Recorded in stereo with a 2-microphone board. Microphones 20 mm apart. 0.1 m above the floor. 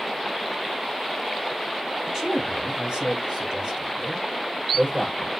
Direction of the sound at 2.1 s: 45° right (ahead or behind).